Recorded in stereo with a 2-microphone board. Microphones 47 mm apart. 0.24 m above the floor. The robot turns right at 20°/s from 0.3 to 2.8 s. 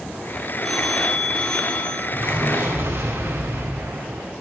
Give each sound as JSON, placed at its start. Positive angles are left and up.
{"t": 0.6, "sound": "a phone ringing", "side_deg": 10, "distance_m": 5.5}
{"t": 2.1, "sound": "an explosion", "side_deg": -60, "distance_m": 8.0}